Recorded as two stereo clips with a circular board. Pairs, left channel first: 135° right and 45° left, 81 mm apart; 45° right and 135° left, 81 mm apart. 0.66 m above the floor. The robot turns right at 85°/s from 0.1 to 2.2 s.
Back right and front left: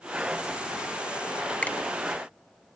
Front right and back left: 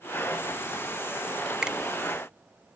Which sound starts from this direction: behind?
A finger snap, at 1.6 s.